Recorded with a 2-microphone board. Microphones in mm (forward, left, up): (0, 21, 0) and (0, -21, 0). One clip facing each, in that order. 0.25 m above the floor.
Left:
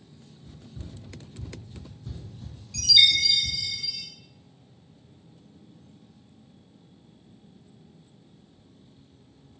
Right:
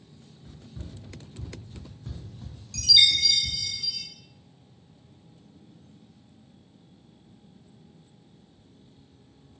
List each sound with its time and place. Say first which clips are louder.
0.5 s running footsteps: even; 80° right, 1.3 m; by 3.6 s 10° right (ahead or behind), 1.3 m
2.7 s a chime: left 1 dB; 15° left (ahead or behind), 0.8 m